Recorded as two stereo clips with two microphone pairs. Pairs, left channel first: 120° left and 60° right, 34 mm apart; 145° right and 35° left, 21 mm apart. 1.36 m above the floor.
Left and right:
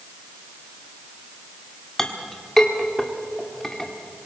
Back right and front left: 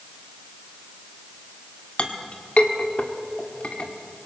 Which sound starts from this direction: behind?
A clink, at 2.0 s.